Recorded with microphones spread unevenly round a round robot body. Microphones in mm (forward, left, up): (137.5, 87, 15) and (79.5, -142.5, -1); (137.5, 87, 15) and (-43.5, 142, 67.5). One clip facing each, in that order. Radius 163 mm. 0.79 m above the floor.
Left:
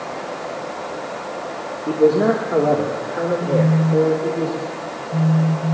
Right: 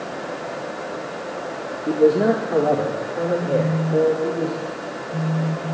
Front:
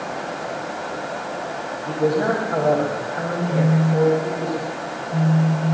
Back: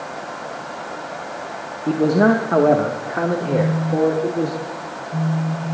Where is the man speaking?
170° left, 1.1 m; by 4.5 s 155° left, 2.5 m.